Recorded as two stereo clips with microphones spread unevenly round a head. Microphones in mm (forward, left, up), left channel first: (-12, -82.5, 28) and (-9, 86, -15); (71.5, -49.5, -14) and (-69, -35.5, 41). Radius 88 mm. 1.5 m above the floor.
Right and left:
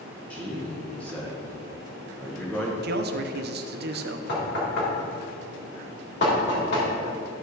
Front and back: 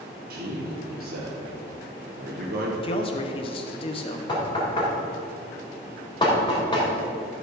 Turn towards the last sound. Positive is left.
turn(degrees=-70)